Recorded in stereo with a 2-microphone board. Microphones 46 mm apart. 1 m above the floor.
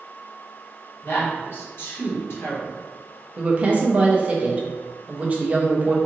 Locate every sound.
1.0 s a woman speaking: 55° left (ahead or behind), 1.4 m
3.4 s a woman speaking: 30° right (ahead or behind), 0.7 m